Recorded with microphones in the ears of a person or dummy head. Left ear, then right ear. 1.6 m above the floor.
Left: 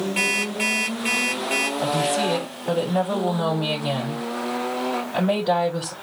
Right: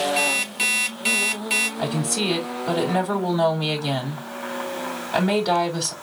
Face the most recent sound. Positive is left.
turn(degrees=-85)